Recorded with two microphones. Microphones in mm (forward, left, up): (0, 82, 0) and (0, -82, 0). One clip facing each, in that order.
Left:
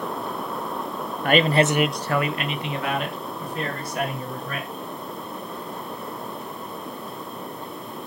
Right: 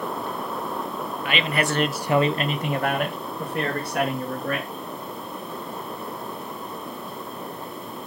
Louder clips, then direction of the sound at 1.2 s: Left 7 dB; 50° left (ahead or behind).